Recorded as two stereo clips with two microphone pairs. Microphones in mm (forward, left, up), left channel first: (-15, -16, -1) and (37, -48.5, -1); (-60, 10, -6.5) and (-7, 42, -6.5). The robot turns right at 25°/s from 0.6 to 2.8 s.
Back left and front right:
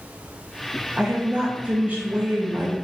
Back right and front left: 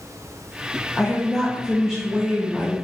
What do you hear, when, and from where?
1.0 s a woman speaking: 75° right, 0.7 m; by 2.8 s 30° right, 0.7 m